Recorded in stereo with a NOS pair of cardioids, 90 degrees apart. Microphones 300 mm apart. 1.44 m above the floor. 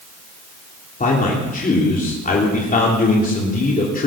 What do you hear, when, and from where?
1.0 s a man speaking: 30° left, 3 m